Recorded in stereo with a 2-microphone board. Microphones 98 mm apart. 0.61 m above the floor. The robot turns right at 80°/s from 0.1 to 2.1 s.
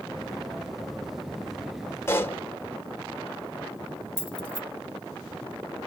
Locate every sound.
2.1 s a pop: 25° left (ahead or behind), 1.5 m
4.2 s keys jangling: 55° left (ahead or behind), 1.1 m